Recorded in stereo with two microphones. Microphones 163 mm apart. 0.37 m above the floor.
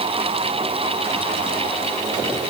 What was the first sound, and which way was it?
Only background noise.